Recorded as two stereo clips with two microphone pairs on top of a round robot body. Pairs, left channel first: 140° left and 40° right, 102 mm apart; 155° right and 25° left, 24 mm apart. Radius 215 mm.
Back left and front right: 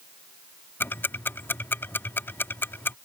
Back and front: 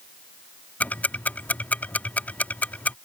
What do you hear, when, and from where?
0.8 s ticking: 145° right